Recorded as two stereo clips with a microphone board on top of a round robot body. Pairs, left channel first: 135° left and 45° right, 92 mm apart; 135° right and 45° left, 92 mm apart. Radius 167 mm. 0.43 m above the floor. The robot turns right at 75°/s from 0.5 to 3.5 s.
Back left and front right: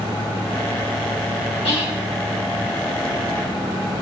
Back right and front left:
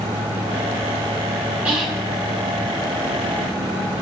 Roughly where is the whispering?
Behind left.